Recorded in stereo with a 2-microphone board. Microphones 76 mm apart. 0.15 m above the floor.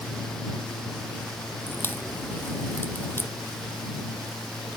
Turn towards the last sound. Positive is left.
turn(degrees=30)  # may be behind; listen again after turning